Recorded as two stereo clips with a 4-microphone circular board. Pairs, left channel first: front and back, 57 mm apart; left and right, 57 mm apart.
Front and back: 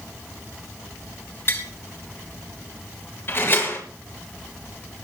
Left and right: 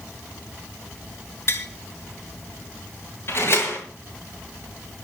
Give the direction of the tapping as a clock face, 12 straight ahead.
10 o'clock.